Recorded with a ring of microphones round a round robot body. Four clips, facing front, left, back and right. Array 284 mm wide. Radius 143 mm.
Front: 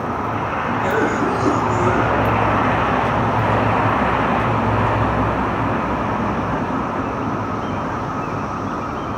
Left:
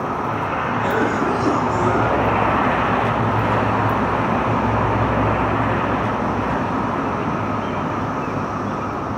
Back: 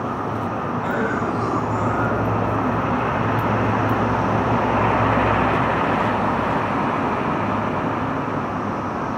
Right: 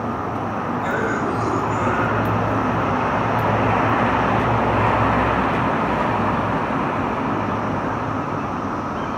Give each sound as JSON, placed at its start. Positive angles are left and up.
{"t": 0.8, "sound": "a cough", "azimuth_deg": 50, "distance_m": 5.0}